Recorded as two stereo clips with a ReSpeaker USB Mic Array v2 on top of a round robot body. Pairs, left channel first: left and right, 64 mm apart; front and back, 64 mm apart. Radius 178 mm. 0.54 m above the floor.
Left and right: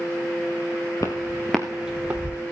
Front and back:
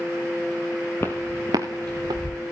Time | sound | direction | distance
1.0 | footsteps | 55° left | 0.7 m